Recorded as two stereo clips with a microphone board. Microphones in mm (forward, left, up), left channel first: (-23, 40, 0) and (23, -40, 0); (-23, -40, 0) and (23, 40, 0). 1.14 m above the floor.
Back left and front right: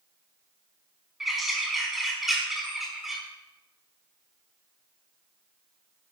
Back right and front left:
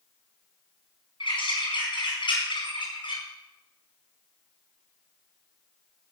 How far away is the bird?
About 5 m.